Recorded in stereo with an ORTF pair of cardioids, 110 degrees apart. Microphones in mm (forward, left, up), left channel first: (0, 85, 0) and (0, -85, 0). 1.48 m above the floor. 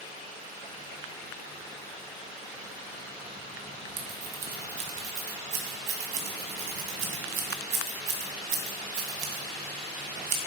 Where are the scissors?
65° right, 2.5 m.